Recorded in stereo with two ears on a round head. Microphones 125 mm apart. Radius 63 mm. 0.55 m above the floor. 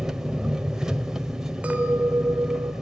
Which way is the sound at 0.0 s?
5° right (ahead or behind).